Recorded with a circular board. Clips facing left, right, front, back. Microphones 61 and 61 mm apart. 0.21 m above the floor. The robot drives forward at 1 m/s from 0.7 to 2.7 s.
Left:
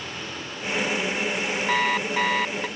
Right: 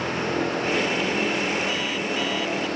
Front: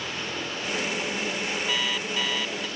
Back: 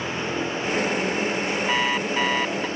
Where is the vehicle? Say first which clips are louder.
Right 10 dB, back 6 dB; 120° right; by 2.8 s 125° right.